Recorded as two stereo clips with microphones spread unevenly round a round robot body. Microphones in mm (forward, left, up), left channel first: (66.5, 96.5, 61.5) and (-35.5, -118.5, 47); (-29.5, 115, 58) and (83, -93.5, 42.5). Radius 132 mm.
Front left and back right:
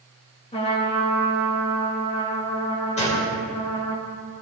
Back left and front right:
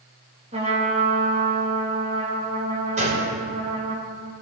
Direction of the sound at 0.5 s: Straight ahead.